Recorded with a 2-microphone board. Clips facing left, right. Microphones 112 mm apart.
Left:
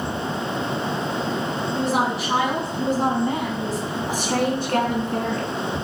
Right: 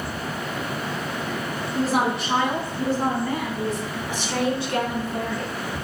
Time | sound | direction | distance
1.8 | a woman speaking | 5° right (ahead or behind) | 1.4 m